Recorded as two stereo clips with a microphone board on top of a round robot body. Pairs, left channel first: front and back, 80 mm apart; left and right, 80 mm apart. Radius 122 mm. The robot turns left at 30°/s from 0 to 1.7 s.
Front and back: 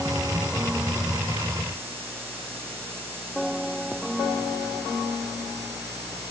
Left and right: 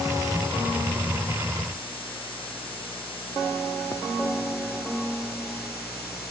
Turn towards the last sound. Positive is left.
No sound to turn to.